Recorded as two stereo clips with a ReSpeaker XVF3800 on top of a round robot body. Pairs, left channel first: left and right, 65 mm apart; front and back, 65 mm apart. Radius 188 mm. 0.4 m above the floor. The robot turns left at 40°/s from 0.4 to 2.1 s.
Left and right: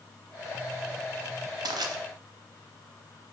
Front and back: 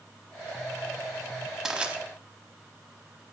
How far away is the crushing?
About 0.8 m.